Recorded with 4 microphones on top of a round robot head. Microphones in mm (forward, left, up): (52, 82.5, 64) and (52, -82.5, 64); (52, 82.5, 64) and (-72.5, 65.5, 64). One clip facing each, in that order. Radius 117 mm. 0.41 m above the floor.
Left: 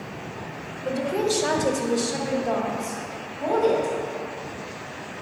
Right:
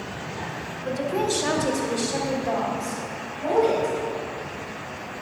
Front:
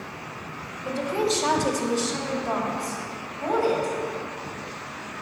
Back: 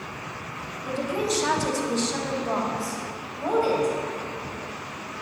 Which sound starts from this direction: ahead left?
A woman speaking, at 0.8 s.